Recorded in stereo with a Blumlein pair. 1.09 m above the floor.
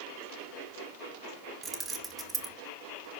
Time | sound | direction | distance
1.6 | keys jangling | 20° right | 1.3 m